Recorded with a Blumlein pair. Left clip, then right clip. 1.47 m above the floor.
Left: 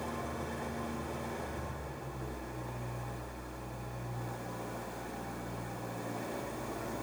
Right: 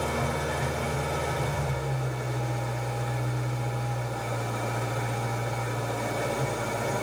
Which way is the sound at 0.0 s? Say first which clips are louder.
Right 10 dB; 40° right.